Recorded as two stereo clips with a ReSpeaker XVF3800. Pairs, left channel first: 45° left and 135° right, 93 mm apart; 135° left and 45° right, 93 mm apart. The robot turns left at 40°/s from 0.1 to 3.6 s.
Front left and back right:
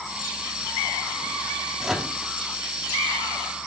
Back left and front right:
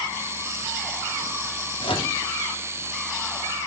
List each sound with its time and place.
1.8 s a microwave: 145° left, 1.1 m; by 2.1 s 130° left, 1.1 m